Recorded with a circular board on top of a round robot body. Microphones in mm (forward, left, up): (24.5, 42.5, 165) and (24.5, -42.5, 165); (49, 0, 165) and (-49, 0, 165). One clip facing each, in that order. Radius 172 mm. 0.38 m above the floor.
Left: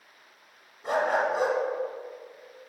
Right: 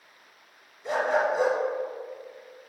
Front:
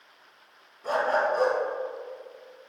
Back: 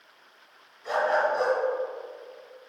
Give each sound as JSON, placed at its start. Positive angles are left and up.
{"t": 0.8, "sound": "a dog barking", "azimuth_deg": 50, "distance_m": 2.0}